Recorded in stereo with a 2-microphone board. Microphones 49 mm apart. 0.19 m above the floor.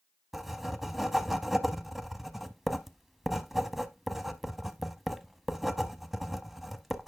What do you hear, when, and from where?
0.3 s writing: 5° right (ahead or behind), 0.6 m